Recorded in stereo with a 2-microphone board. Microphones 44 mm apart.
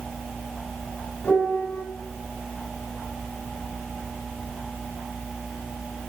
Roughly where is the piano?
Left.